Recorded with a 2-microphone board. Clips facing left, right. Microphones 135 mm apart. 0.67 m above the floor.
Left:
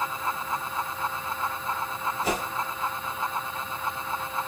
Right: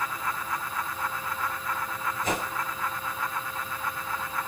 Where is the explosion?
No explosion in this recording.